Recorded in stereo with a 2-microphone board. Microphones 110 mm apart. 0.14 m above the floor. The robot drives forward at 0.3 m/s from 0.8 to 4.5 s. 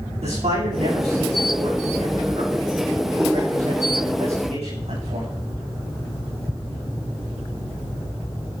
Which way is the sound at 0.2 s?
80° right.